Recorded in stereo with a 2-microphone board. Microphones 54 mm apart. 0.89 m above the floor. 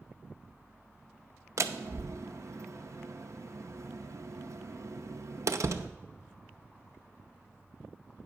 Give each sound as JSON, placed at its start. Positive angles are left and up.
{"t": 1.6, "sound": "a door slam", "side_deg": -65, "distance_m": 0.6}